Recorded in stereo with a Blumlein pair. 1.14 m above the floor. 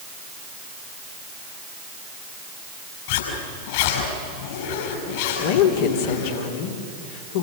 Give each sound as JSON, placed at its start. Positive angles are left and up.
{"t": 3.1, "sound": "a zipper", "azimuth_deg": 50, "distance_m": 6.5}
{"t": 5.4, "sound": "a woman speaking", "azimuth_deg": 55, "distance_m": 3.0}